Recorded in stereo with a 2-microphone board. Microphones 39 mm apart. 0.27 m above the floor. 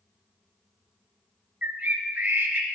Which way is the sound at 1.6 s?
45° right (ahead or behind).